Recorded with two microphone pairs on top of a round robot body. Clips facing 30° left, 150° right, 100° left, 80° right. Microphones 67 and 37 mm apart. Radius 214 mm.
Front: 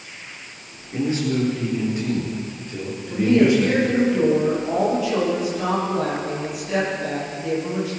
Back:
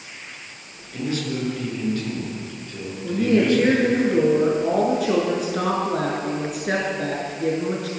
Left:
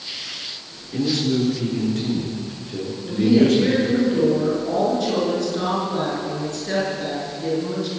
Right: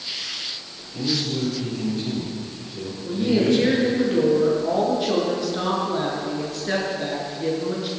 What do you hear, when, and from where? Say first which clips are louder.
0.9 s a man speaking: front 4 dB, left 5 dB; 95° left, 9.5 m; by 4.0 s 105° left, 8 m
3.0 s a woman speaking: front 2 dB, left 4 dB; 160° right, 7 m